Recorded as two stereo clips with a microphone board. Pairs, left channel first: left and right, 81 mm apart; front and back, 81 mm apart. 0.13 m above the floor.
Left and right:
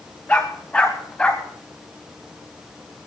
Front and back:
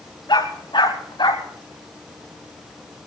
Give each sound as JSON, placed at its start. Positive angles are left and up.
{"t": 0.3, "sound": "a dog barking", "azimuth_deg": 20, "distance_m": 4.5}